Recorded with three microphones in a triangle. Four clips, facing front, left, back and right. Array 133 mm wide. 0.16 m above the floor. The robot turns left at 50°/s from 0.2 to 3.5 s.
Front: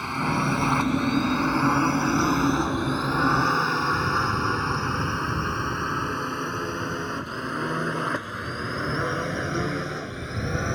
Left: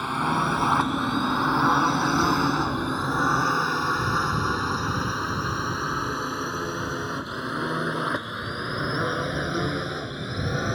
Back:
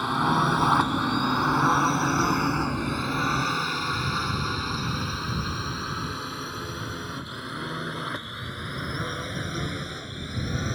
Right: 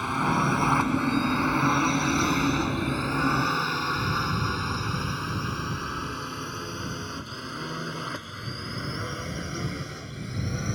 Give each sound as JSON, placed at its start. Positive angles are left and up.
{"t": 0.0, "sound": "a drone", "azimuth_deg": 165}